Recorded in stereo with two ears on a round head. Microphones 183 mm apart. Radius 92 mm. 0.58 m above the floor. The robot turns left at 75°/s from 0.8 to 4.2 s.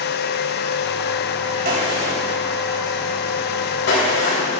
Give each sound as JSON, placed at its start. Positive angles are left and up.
{"t": 1.6, "sound": "a gunshot", "side_deg": -45, "distance_m": 3.5}